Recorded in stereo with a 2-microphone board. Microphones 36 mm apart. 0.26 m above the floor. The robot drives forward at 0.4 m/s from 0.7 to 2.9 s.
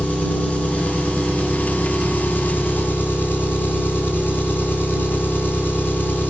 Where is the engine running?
50° left (ahead or behind), 1.5 m; by 6.3 s 70° left (ahead or behind), 1.2 m.